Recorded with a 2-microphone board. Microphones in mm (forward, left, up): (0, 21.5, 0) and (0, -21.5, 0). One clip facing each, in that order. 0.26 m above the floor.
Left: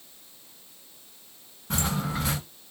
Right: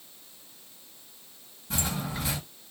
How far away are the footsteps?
About 1.5 m.